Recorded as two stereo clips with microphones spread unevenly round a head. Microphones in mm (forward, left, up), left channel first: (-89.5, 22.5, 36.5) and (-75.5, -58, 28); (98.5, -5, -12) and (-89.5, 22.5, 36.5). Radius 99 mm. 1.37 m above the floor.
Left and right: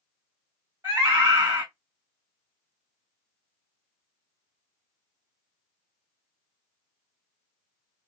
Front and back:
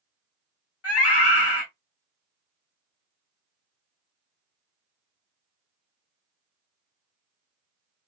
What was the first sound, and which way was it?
A scream, 10° right.